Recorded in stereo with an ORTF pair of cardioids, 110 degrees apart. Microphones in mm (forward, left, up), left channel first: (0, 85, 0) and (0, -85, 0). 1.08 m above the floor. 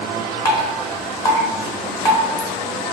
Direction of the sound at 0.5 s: 20° left.